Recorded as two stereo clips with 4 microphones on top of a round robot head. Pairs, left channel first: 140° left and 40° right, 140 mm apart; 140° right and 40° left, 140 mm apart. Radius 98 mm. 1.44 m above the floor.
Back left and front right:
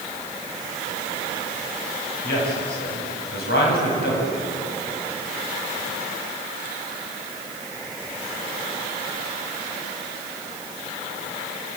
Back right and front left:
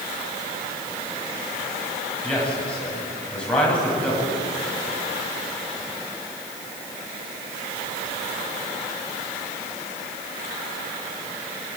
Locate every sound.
2.2 s a man speaking: 140° left, 9 m